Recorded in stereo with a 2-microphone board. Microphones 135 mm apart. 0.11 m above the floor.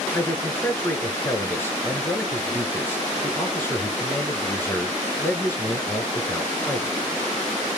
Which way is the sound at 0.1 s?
15° left (ahead or behind).